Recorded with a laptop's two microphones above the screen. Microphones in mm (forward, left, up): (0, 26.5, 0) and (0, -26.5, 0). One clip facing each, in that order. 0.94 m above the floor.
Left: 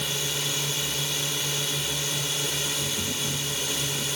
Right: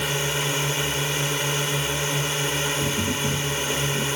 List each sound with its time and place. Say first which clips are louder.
0.0 s a drone: right 6 dB; 35° right (ahead or behind)
2.8 s tapping: right 6 dB; 50° right (ahead or behind)